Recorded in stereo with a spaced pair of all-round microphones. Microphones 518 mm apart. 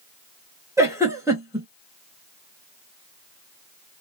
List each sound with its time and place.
0.8 s a giggle: 5° right (ahead or behind), 1.1 m